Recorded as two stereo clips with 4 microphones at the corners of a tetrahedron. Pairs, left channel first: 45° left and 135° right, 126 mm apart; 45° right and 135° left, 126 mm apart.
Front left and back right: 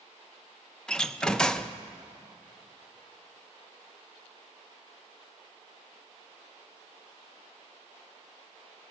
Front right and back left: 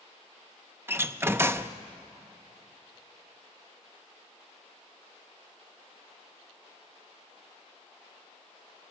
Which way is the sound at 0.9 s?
115° left.